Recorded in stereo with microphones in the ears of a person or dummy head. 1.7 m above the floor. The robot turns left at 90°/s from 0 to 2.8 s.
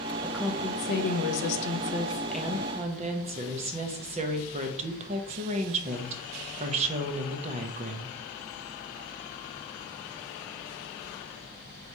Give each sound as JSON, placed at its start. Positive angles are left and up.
{"t": 0.2, "sound": "a woman speaking", "azimuth_deg": -170, "distance_m": 0.7}